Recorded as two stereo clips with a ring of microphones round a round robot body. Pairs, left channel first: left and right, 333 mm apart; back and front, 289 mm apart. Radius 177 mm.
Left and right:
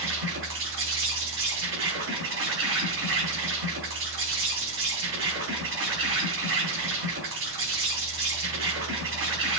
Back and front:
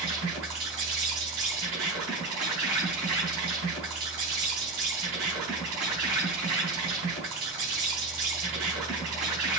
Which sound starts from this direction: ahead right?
An insect, at 0.0 s.